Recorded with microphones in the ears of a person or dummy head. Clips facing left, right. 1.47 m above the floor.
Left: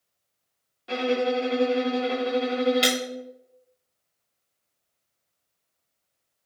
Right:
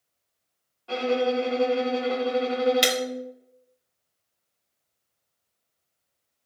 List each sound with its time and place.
0.9 s a violin: 20° left (ahead or behind), 1.7 m
2.8 s breaking glass: 25° right (ahead or behind), 1.7 m